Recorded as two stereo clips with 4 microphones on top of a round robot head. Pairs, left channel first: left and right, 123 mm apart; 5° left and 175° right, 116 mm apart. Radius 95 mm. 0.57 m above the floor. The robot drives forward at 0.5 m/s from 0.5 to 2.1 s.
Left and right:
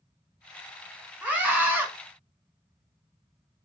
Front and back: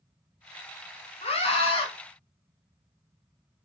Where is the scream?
15° right, 1.7 m; by 1.9 s 20° right, 1.4 m.